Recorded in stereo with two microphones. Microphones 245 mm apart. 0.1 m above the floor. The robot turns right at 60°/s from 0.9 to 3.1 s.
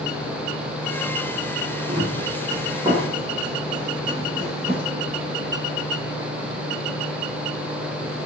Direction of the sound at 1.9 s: 80° right.